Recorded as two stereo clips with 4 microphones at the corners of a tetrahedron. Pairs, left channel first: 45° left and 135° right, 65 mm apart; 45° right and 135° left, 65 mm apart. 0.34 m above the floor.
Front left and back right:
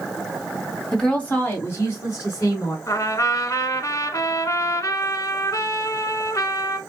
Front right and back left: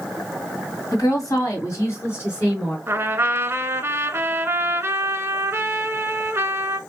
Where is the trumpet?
75° left, 0.6 m.